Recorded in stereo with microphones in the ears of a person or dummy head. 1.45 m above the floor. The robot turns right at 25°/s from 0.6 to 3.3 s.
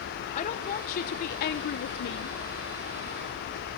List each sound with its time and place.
0.3 s a woman speaking: 50° left, 0.6 m; by 2.4 s 90° left, 0.6 m